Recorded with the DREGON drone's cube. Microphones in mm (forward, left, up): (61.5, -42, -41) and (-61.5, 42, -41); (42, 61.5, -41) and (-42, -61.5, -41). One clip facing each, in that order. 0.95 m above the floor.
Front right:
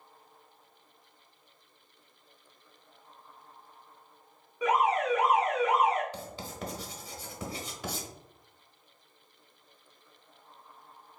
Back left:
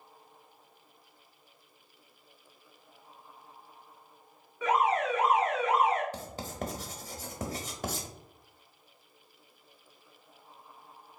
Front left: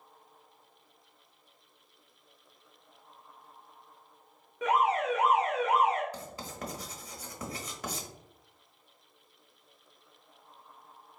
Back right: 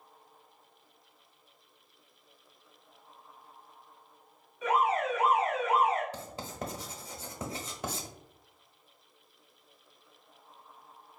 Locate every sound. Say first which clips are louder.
4.6 s an alarm: front right 1 dB, front left 1 dB; 40° left, 1.7 m
6.1 s writing: back left 2 dB, back right 2 dB; 175° left, 0.9 m